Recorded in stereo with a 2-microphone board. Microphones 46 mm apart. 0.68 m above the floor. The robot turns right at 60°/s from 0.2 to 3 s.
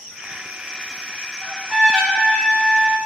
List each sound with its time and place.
1.4 s a trumpet: 35° right, 0.8 m; by 3.0 s 60° left, 0.8 m